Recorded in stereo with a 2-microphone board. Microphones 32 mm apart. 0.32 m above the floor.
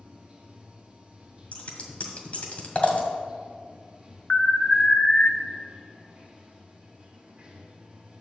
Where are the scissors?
45° left (ahead or behind), 1.8 m.